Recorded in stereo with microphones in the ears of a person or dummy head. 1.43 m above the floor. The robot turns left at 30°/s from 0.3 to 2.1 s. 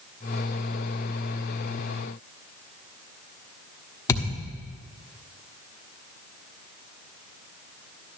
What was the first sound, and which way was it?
A thud, 15° left (ahead or behind).